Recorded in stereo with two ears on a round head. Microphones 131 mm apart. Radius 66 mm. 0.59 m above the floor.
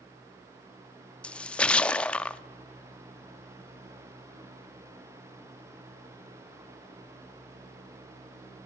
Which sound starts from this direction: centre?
A splash, at 1.2 s.